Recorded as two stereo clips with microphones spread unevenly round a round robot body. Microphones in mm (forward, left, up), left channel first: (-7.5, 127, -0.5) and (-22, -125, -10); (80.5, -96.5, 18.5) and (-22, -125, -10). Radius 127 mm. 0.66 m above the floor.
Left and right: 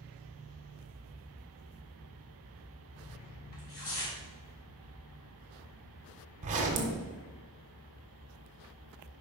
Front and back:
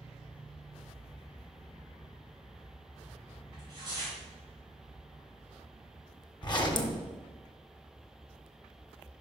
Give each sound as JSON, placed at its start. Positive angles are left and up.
{"t": 3.5, "sound": "tearing paper", "azimuth_deg": 140, "distance_m": 2.5}
{"t": 6.4, "sound": "a zipper", "azimuth_deg": -30, "distance_m": 1.3}